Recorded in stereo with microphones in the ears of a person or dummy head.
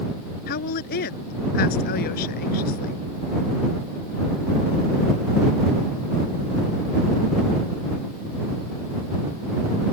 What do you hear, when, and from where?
0.5 s a woman speaking: 60° left (ahead or behind)